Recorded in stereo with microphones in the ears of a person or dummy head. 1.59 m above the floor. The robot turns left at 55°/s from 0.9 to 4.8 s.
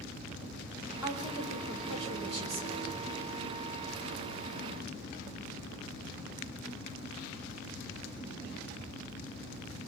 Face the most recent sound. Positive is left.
turn(degrees=135)